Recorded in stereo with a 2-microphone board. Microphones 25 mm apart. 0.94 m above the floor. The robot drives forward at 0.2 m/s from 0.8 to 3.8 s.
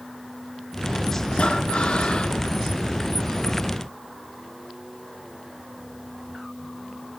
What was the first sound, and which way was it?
Breathing, 45° left (ahead or behind).